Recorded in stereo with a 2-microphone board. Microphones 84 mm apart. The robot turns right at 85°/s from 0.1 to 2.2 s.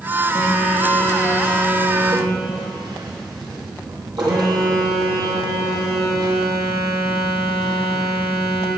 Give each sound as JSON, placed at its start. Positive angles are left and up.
{"t": 0.3, "sound": "a phone buzzing", "azimuth_deg": 100, "distance_m": 3.0}